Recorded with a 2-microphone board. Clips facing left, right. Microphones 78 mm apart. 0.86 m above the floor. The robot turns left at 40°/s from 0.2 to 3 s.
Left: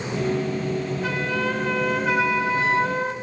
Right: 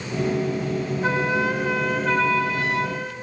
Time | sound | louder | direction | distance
1.0 | a flute | right 5 dB | 145° right | 1.0 m